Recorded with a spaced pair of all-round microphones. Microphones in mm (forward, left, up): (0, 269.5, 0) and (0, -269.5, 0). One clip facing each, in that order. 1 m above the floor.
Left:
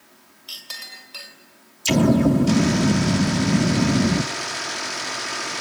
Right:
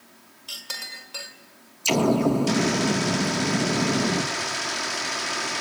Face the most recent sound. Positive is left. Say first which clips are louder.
# left 4 dB
turn(degrees=45)  # may be behind; listen again after turning